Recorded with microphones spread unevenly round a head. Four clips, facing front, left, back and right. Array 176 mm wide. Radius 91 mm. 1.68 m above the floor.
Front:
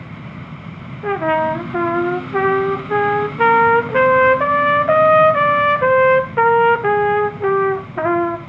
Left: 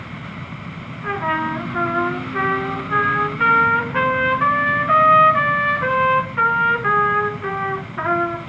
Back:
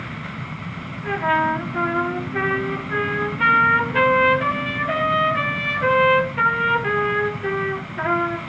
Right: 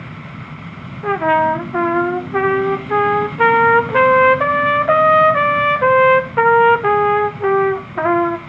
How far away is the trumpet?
About 0.6 m.